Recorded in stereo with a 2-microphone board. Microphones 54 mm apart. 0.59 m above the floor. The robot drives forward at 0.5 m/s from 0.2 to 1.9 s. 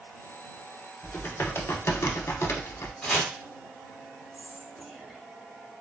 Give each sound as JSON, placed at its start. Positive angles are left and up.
{"t": 1.0, "sound": "typing on a keyboard", "side_deg": 40, "distance_m": 0.8}
{"t": 3.0, "sound": "chopping", "side_deg": 15, "distance_m": 1.5}
{"t": 4.3, "sound": "whispering", "side_deg": 0, "distance_m": 0.9}